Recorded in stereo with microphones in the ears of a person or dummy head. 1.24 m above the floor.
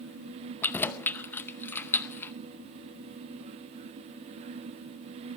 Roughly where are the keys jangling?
Centre.